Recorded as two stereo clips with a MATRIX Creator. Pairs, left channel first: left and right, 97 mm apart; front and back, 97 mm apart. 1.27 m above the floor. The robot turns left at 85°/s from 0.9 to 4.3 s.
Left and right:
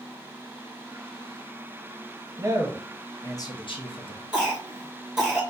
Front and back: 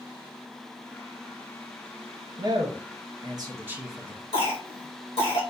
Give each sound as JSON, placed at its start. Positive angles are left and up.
{"t": 2.4, "sound": "a man speaking", "azimuth_deg": -135, "distance_m": 0.9}
{"t": 4.3, "sound": "a cough", "azimuth_deg": -5, "distance_m": 2.0}